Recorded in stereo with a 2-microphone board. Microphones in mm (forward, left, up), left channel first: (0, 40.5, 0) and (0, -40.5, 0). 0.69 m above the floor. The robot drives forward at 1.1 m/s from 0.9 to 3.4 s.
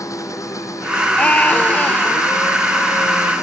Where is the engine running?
45° left (ahead or behind); by 3.4 s 40° left (ahead or behind).